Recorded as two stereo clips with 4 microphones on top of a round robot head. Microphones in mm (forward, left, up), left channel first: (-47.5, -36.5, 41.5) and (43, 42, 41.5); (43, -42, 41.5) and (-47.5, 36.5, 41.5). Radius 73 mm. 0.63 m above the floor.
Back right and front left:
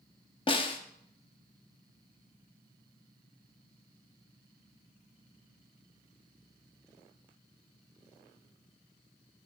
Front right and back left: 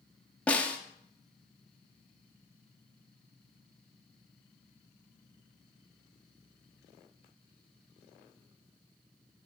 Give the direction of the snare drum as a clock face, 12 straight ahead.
4 o'clock.